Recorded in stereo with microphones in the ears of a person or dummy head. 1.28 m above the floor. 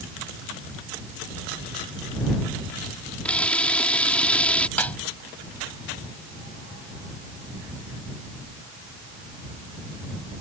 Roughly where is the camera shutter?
Centre.